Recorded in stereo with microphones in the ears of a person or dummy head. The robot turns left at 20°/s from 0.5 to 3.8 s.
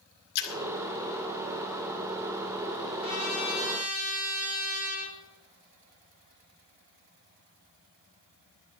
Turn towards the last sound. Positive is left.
turn(degrees=-45)  # may be behind; listen again after turning